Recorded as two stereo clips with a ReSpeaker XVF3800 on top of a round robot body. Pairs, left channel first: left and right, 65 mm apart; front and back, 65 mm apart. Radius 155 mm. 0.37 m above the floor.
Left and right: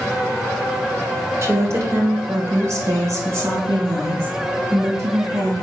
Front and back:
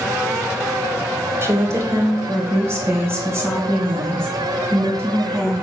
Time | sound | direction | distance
1.4 | a woman speaking | 135° right | 2 m